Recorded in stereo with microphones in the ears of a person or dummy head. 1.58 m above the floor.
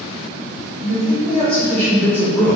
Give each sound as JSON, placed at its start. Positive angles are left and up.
{"t": 0.8, "sound": "a man speaking", "side_deg": 0, "distance_m": 1.6}